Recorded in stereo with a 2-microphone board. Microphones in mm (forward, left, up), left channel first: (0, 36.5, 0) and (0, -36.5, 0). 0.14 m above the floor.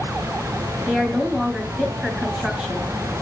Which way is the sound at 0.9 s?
15° right (ahead or behind).